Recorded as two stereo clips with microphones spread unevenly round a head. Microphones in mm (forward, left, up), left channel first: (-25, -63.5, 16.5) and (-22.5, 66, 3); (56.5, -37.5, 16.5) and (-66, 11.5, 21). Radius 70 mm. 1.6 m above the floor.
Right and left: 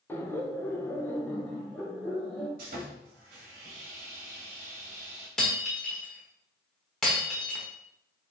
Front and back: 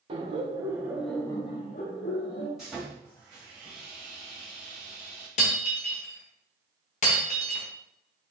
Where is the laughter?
160° right, 0.9 m; by 2.5 s 5° right, 1.0 m.